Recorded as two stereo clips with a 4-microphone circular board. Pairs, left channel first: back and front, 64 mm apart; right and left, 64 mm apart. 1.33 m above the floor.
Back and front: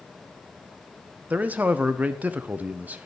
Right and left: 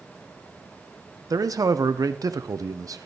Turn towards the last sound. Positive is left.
turn(degrees=65)